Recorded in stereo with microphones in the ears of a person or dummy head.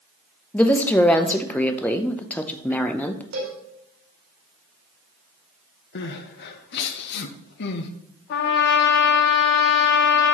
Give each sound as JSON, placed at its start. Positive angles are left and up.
{"t": 0.5, "sound": "a woman speaking", "side_deg": 5, "distance_m": 0.8}
{"t": 3.3, "sound": "a cowbell", "side_deg": -80, "distance_m": 4.0}
{"t": 6.0, "sound": "crying", "side_deg": 60, "distance_m": 0.9}
{"t": 8.3, "sound": "a trumpet", "side_deg": 55, "distance_m": 1.1}